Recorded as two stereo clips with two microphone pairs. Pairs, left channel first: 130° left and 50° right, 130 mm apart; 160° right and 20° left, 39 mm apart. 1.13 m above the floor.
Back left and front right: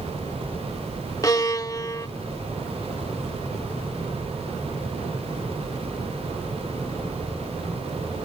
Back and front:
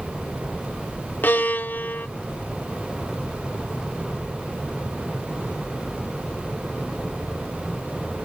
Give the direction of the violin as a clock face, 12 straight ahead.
6 o'clock.